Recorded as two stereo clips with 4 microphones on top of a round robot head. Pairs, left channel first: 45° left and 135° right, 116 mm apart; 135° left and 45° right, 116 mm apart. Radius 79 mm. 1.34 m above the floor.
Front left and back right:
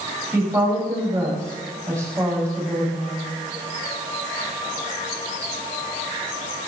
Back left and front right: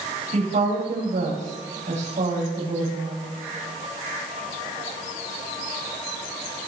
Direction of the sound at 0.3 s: 65° right.